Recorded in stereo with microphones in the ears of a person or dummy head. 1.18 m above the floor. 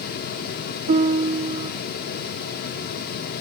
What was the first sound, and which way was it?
A piano, 35° right (ahead or behind).